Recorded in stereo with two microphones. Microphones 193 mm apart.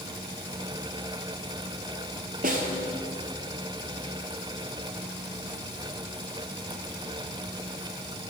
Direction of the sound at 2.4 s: 50° right (ahead or behind).